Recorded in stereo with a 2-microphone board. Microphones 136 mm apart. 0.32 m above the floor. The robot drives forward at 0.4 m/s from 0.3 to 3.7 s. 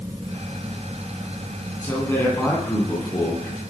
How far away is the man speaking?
About 10 m.